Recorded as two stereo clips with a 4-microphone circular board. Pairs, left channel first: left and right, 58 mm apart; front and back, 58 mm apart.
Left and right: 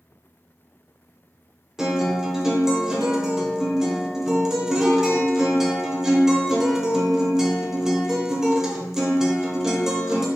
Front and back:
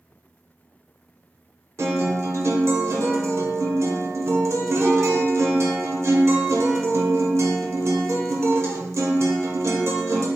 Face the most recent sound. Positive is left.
turn(degrees=-170)